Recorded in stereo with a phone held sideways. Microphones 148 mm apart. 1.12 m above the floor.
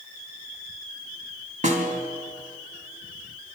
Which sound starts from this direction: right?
A snare drum, at 1.6 s.